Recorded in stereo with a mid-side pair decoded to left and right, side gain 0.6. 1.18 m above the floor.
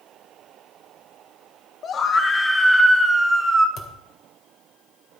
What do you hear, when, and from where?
1.8 s a scream: 45° left, 0.7 m; by 3.7 s 20° right, 1.5 m
3.8 s a thud: 50° left, 2.5 m